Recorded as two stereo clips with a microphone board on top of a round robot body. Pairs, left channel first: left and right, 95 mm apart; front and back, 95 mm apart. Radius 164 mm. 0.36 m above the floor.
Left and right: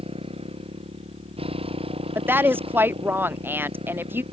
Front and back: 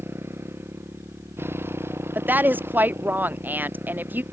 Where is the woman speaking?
130° right.